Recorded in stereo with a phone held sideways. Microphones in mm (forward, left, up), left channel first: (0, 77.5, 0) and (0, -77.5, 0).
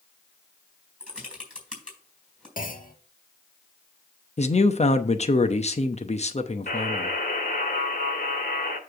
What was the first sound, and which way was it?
Typing on a keyboard, 5° right (ahead or behind).